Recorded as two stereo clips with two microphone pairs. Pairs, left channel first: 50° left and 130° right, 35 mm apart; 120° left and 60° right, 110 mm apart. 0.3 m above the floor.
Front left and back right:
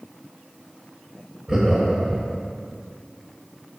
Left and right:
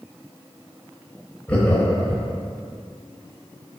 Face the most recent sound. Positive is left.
turn(degrees=180)